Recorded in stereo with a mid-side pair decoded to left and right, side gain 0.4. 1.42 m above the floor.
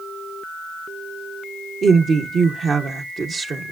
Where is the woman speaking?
50° right, 1.0 m.